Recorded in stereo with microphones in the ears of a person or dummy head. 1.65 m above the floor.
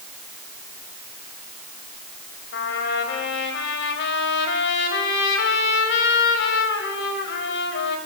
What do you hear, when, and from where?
2.5 s a trumpet: 70° left (ahead or behind), 3.5 m